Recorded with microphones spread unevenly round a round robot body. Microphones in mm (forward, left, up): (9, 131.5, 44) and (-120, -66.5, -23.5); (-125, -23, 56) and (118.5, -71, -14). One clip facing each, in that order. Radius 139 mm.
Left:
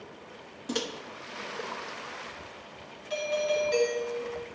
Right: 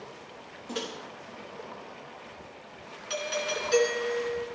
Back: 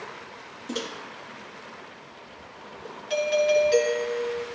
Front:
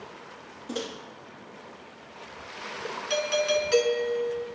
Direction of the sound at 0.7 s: 85° left.